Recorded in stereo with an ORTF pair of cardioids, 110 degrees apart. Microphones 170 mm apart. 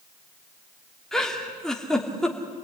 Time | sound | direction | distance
1.1 | a giggle | straight ahead | 3 m